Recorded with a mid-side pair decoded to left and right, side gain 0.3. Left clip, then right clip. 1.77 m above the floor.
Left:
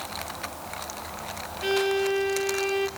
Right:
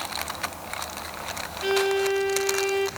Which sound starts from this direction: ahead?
A violin, at 1.6 s.